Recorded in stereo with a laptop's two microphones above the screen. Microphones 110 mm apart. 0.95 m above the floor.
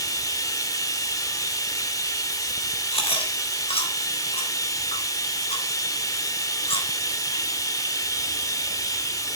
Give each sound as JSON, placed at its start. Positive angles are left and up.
{"t": 0.0, "sound": "running water", "side_deg": 30, "distance_m": 2.0}
{"t": 2.9, "sound": "chewing", "side_deg": 60, "distance_m": 3.5}